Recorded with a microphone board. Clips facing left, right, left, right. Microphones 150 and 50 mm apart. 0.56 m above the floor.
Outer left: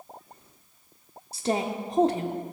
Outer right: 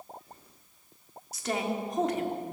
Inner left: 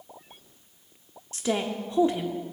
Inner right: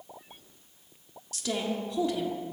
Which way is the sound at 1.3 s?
30° left (ahead or behind).